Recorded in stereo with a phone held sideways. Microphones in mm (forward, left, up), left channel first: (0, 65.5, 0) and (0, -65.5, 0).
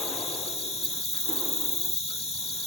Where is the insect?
50° left (ahead or behind).